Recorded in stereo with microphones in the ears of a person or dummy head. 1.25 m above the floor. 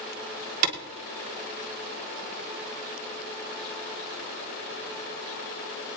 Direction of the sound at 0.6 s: 55° right (ahead or behind).